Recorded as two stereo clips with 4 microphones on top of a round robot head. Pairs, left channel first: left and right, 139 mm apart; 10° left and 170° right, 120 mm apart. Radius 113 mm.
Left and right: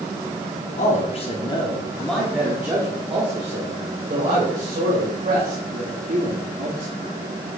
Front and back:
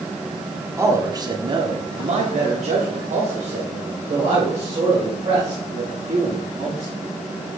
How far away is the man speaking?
About 1.7 m.